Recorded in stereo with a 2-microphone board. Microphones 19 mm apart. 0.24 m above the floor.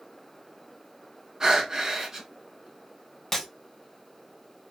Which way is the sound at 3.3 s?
15° left (ahead or behind).